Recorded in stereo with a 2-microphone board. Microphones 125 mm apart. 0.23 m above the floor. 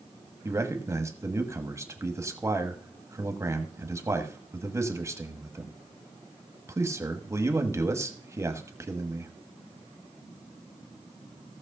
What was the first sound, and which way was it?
A man speaking, 25° right (ahead or behind).